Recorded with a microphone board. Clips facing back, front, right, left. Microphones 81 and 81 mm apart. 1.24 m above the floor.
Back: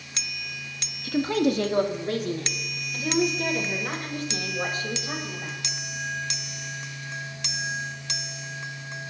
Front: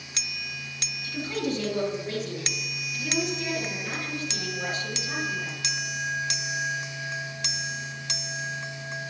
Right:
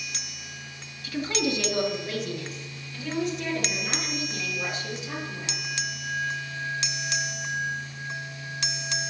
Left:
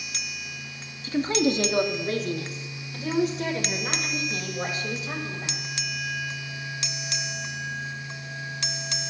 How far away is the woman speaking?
About 1.5 m.